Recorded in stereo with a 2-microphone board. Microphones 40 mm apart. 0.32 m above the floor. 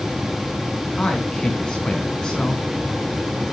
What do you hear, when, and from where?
1.0 s a man speaking: 20° left (ahead or behind), 4 m